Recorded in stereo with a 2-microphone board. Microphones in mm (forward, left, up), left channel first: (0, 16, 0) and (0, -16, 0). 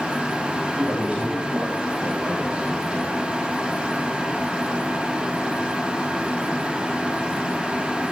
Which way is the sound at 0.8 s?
35° right (ahead or behind).